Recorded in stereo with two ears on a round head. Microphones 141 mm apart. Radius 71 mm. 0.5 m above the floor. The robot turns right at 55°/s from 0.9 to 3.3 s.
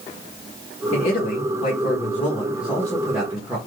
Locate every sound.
0.9 s a man speaking: 60° left, 1.1 m; by 3.6 s 170° right, 1.1 m